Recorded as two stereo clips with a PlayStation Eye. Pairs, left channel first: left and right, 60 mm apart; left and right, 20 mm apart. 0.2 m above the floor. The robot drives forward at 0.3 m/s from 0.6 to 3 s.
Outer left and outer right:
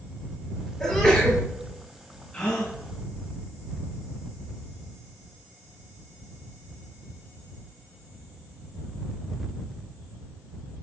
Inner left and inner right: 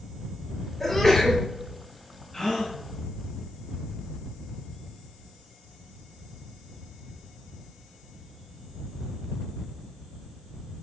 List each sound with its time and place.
0.8 s a sneeze: 15° left (ahead or behind), 4 m
2.3 s a gasp: 20° left (ahead or behind), 5 m